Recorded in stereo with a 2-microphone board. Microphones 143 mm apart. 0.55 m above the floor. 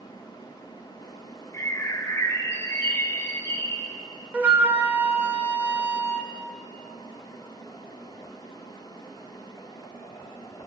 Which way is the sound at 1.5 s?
20° left (ahead or behind).